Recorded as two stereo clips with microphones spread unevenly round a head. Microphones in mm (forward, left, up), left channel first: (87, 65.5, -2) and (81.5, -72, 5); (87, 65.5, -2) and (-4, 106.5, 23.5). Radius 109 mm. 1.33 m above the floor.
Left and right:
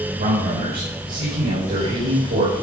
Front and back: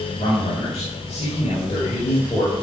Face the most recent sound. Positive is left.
turn(degrees=-95)